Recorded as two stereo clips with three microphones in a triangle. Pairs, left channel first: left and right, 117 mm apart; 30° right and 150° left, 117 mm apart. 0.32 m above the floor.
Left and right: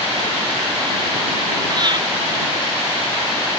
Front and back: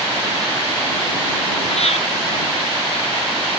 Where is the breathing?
45° right.